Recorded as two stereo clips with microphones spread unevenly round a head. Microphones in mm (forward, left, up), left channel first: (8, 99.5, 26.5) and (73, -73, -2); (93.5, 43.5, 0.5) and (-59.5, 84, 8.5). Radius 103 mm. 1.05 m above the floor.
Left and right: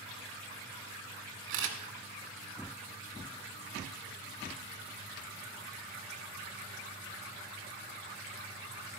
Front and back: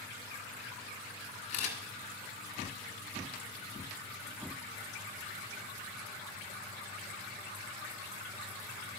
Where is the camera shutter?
65° right, 1.6 m.